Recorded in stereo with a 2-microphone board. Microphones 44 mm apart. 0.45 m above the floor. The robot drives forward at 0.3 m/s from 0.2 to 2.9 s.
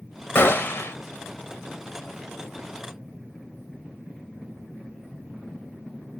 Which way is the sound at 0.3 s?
55° left (ahead or behind).